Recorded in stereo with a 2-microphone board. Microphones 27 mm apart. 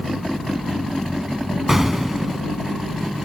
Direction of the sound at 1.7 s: 15° right (ahead or behind).